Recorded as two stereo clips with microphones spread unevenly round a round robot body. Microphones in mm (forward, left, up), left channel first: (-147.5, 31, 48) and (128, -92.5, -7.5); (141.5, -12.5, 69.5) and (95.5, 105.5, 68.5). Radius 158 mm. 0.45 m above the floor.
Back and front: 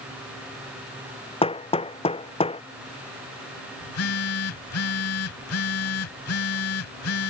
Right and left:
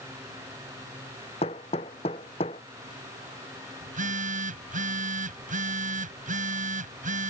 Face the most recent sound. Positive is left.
turn(degrees=110)